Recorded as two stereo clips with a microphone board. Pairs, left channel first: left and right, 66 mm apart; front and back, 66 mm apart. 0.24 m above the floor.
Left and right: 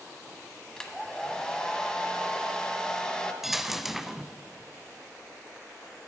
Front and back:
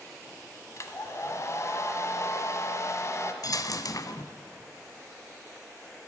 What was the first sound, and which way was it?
A hair dryer, 15° left.